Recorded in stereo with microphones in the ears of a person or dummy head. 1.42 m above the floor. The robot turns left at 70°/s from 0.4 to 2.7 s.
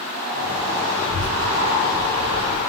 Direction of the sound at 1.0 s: 135° left.